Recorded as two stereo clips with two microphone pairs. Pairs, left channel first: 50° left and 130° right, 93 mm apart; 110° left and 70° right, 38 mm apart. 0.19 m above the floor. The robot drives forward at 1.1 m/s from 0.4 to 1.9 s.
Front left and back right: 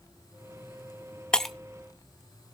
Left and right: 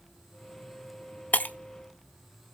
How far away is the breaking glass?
About 0.7 m.